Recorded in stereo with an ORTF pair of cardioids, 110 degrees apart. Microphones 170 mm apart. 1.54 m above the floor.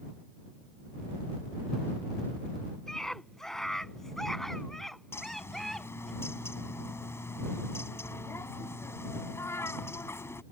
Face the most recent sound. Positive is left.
turn(degrees=15)